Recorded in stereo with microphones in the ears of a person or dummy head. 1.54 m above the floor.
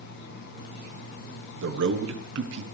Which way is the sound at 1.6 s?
70° right (ahead or behind).